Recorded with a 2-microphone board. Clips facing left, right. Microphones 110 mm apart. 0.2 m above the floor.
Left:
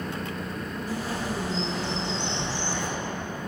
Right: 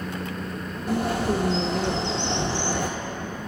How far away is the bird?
About 1.2 m.